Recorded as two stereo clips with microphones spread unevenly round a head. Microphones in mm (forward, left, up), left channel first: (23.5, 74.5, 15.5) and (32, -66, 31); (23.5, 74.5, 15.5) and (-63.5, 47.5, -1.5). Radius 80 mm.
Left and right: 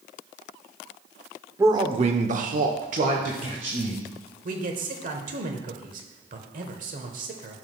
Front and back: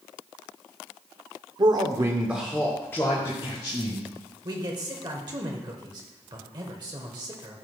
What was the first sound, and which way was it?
A man speaking, 160° right.